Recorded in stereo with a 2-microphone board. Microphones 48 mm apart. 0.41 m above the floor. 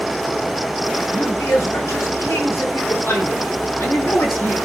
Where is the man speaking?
70° left (ahead or behind), 6 m; by 4.5 s 50° left (ahead or behind), 3.5 m.